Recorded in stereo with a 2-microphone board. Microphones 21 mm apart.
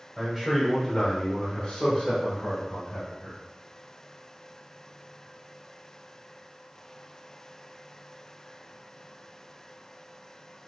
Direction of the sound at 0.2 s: 10° right (ahead or behind).